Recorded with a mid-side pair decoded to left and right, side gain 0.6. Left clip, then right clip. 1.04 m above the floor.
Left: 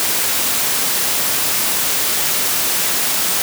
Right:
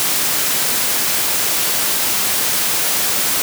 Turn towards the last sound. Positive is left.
No sound to turn to.